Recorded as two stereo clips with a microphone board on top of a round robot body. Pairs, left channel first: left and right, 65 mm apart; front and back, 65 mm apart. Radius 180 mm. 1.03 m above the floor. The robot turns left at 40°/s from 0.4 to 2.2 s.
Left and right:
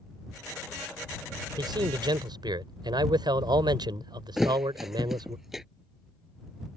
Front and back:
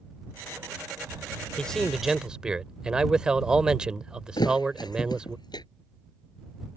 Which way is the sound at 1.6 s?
75° right.